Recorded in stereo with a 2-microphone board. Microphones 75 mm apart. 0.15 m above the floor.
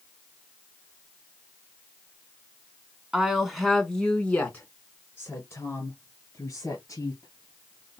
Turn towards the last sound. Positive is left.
turn(degrees=50)  # may be behind; listen again after turning